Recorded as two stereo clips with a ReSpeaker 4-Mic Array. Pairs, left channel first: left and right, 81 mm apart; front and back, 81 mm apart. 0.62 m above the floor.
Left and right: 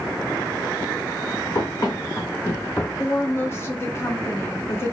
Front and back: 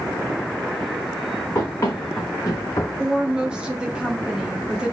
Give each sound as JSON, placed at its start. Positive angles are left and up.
{"t": 1.6, "sound": "running footsteps", "azimuth_deg": 50, "distance_m": 2.0}
{"t": 3.0, "sound": "a woman speaking", "azimuth_deg": 110, "distance_m": 0.8}